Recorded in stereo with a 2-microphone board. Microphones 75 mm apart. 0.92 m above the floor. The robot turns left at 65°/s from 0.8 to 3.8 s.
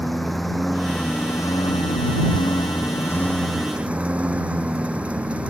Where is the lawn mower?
Straight behind; by 5.5 s 15° right.